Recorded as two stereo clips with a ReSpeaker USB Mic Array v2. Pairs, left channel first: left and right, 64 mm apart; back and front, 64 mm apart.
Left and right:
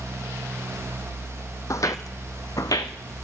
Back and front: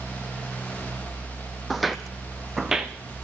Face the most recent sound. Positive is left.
turn(degrees=80)